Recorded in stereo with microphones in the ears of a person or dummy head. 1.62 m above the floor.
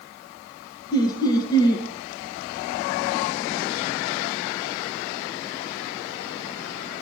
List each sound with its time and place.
0.9 s laughter: 25° left (ahead or behind), 2.5 m